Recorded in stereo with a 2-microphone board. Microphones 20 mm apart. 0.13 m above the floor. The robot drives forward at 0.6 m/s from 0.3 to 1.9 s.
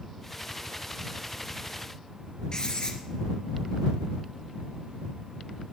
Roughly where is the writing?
Left.